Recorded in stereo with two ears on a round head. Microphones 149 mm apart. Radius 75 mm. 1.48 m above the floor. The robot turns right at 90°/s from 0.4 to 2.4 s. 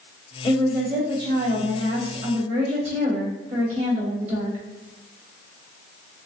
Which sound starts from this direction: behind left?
A woman speaking, at 0.4 s.